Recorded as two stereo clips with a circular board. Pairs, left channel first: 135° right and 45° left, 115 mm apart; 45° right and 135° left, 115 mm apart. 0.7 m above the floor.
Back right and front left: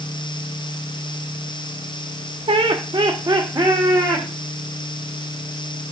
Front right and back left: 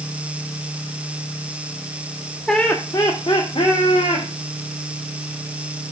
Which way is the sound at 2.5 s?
40° left.